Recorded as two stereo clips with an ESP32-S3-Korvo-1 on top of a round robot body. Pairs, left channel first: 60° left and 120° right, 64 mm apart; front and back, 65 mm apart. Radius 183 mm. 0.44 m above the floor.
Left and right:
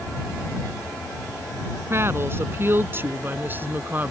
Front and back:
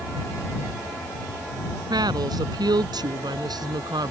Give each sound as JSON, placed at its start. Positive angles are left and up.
{"t": 1.9, "sound": "a woman speaking", "azimuth_deg": -175}